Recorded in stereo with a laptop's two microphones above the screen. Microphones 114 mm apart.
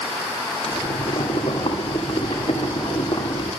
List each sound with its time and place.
0.6 s boiling: 55° left (ahead or behind), 2.5 m